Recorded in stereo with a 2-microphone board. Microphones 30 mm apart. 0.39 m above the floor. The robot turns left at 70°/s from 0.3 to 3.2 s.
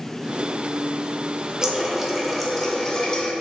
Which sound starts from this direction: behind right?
A running tap, at 1.6 s.